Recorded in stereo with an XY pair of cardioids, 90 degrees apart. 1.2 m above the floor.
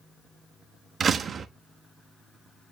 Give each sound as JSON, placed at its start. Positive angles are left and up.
{"t": 1.0, "sound": "a door slam", "azimuth_deg": -55, "distance_m": 1.1}